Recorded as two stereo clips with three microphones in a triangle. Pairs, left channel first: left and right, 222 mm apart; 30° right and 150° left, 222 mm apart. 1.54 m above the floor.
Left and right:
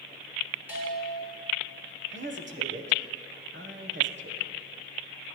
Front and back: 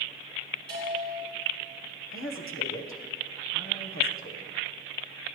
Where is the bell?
170° right, 5 m.